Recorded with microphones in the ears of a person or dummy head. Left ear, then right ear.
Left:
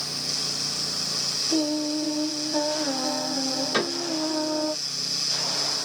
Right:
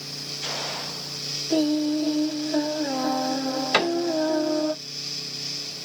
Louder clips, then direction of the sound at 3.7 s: Right 7 dB; 55° right (ahead or behind).